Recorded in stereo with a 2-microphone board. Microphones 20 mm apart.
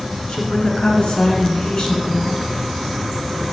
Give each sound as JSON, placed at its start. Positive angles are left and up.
{"t": 0.3, "sound": "a woman speaking", "side_deg": 50, "distance_m": 2.0}